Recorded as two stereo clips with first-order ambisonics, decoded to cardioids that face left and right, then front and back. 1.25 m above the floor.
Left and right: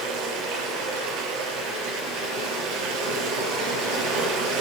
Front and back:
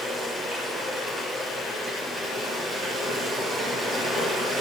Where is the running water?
105° right, 6 m.